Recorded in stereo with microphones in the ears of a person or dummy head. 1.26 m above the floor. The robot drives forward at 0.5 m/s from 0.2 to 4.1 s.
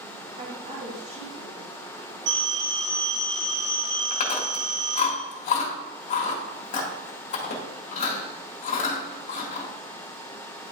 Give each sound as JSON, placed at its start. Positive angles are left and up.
{"t": 0.4, "sound": "a woman speaking", "side_deg": -40, "distance_m": 1.5}
{"t": 2.3, "sound": "a phone ringing", "side_deg": -70, "distance_m": 3.5}
{"t": 4.1, "sound": "chewing", "side_deg": 40, "distance_m": 1.8}